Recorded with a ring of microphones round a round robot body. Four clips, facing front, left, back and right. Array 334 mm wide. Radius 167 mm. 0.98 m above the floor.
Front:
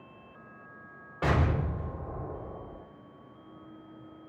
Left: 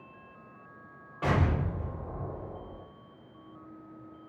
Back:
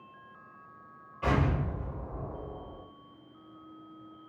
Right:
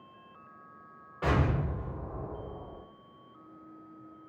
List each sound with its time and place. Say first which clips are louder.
1.2 s an explosion: even, even; straight ahead, 0.8 m